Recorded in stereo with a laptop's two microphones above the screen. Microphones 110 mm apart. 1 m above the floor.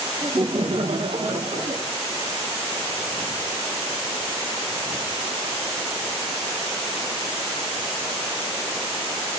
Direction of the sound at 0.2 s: 35° right (ahead or behind).